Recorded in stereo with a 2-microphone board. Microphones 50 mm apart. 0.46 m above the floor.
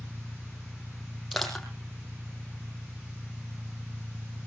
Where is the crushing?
5° left (ahead or behind), 4 m.